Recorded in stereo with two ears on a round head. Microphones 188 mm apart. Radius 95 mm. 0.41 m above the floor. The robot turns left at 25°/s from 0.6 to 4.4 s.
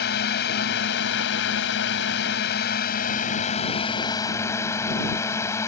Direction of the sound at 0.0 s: 110° left.